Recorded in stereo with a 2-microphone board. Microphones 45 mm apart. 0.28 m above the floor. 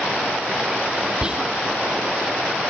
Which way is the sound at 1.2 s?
25° right (ahead or behind).